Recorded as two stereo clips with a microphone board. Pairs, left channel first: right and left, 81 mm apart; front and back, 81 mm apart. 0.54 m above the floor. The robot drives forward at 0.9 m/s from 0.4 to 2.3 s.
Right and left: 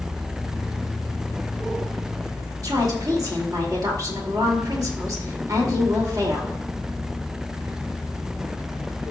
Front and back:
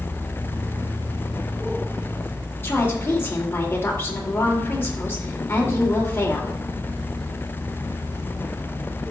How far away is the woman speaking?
About 1.8 m.